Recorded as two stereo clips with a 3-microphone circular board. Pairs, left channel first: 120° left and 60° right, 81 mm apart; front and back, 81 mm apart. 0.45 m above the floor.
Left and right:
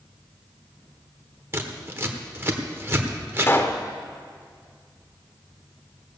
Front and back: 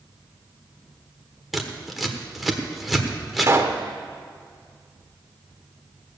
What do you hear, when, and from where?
1.5 s scissors: 95° right, 1.2 m
3.4 s a pop: 155° left, 0.8 m